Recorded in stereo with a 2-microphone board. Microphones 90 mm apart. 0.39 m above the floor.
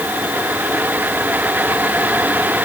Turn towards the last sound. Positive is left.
No sound to turn to.